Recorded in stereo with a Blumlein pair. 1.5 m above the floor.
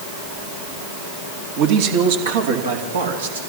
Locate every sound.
1.6 s a man speaking: 45° right, 2.5 m; by 3.4 s 70° right, 4.5 m